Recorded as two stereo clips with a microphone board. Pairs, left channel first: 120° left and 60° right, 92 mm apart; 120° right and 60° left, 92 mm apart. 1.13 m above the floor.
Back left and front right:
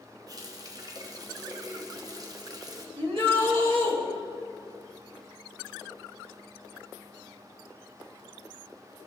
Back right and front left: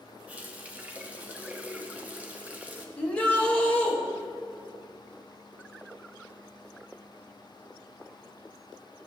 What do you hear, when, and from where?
0.3 s a running tap: 15° right, 0.9 m
3.0 s a shout: 45° right, 2 m